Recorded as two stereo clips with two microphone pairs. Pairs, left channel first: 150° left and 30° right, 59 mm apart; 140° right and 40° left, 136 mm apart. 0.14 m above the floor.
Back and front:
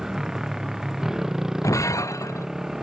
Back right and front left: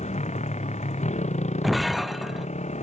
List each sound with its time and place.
0.0 s a motorcycle: 110° right
1.6 s breaking glass: 130° left